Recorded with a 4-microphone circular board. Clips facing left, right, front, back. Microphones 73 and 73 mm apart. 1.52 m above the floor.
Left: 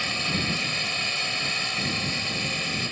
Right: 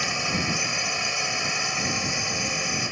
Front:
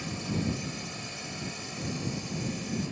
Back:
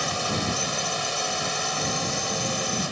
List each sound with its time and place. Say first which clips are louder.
0.0 s a drone: right 2 dB, back 6 dB; 165° right